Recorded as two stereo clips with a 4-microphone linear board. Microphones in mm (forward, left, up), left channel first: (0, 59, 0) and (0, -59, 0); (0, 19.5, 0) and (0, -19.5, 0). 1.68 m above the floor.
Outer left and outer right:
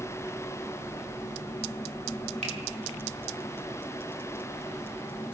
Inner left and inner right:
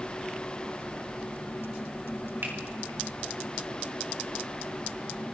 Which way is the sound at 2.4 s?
75° right (ahead or behind).